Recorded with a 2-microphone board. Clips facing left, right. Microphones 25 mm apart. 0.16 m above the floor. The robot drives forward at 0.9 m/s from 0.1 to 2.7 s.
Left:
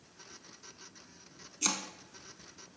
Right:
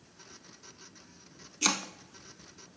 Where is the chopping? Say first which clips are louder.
Right 5 dB; 30° right (ahead or behind), 0.6 m; by 1.9 s 20° right (ahead or behind), 0.8 m.